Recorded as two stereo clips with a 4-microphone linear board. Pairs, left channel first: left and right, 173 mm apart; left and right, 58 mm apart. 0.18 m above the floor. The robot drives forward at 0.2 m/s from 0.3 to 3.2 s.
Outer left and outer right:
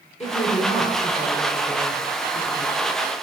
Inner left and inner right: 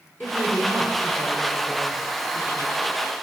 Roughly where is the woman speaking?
Left.